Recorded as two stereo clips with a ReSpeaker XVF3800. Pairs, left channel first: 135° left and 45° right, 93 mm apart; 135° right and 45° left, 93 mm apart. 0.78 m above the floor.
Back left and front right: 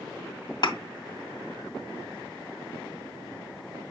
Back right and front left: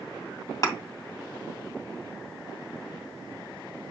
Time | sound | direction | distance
0.6 | a thud | 175° left | 2 m